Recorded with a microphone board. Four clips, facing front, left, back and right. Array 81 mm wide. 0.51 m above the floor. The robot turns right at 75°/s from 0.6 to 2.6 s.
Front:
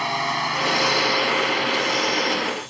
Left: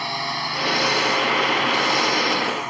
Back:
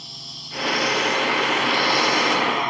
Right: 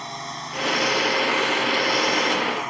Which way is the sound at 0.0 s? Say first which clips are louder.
Left 6 dB, front 22 dB; 20° left.